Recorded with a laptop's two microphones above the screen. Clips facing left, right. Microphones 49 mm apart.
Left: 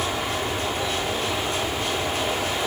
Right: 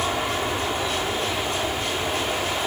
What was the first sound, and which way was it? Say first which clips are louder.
An aircraft: right 1 dB; 15° right (ahead or behind).